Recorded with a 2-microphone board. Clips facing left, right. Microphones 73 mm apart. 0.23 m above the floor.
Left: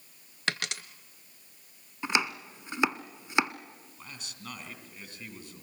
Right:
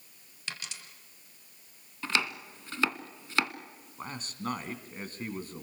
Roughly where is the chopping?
Centre.